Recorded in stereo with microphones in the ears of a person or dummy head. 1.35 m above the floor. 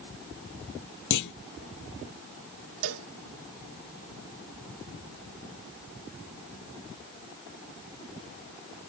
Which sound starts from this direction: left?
A clunk, at 1.1 s.